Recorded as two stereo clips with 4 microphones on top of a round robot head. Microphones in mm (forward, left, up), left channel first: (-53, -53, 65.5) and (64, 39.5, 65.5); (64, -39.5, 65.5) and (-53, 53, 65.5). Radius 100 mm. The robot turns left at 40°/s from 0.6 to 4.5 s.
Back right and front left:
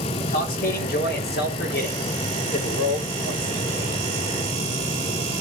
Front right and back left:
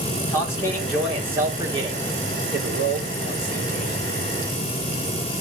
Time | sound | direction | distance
0.2 | a man speaking | 110° right | 4 m